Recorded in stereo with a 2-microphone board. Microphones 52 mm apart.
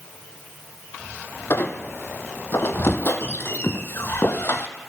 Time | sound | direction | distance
1.5 | a squeak | 50° left (ahead or behind) | 1.6 m